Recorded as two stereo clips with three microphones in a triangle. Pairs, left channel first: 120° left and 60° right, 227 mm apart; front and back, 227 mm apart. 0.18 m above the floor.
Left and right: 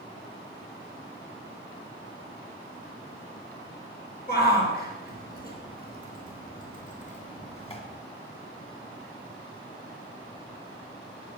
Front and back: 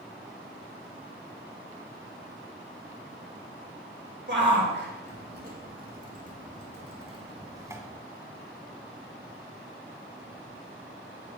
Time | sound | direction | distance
4.3 | a shout | 155° left | 3 m